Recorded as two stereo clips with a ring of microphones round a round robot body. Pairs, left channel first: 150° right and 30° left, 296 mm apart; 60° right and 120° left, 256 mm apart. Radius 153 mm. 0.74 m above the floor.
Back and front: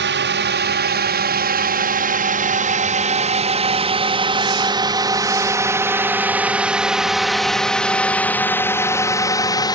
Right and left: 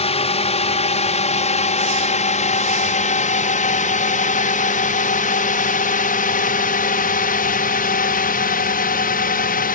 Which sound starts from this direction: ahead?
A drone, at 0.0 s.